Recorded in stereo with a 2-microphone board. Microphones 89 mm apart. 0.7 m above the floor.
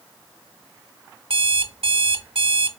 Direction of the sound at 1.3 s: 80° right.